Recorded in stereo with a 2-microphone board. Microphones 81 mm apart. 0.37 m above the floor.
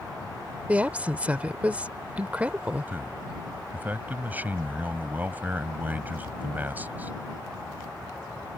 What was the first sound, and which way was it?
A woman speaking, 20° right (ahead or behind).